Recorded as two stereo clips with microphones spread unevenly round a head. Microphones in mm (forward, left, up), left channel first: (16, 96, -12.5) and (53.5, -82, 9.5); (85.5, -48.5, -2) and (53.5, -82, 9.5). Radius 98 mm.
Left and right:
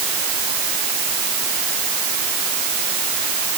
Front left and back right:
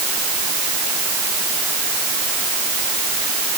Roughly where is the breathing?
I don't hear breathing.